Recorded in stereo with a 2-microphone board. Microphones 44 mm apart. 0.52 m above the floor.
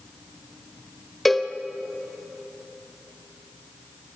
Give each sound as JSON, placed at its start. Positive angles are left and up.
{"t": 1.2, "sound": "a cowbell", "side_deg": 0, "distance_m": 1.0}